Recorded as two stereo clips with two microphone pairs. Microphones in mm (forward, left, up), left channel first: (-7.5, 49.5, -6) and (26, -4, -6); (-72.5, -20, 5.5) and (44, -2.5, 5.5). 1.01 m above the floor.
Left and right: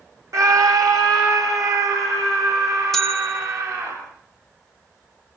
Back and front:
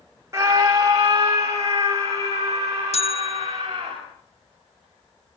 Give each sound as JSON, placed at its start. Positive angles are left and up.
{"t": 0.3, "sound": "a scream", "azimuth_deg": -50, "distance_m": 1.4}
{"t": 2.9, "sound": "a bell", "azimuth_deg": -155, "distance_m": 1.1}